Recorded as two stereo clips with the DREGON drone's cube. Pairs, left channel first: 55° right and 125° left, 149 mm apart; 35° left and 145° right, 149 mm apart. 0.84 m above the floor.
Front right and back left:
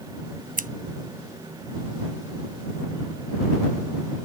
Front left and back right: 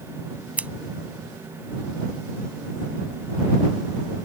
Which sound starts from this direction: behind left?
Scissors, at 0.6 s.